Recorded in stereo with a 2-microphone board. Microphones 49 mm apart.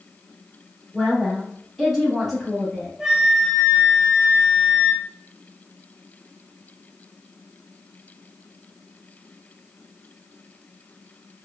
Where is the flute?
10° right (ahead or behind), 0.7 m.